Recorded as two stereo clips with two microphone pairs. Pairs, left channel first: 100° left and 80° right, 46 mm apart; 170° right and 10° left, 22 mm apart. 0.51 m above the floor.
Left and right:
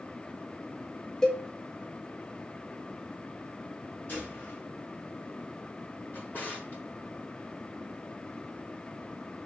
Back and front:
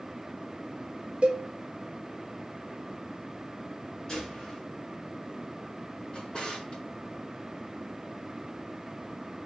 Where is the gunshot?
135° left, 2.5 m.